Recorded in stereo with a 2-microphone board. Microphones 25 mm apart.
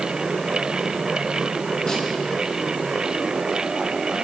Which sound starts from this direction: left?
A snare drum, at 1.9 s.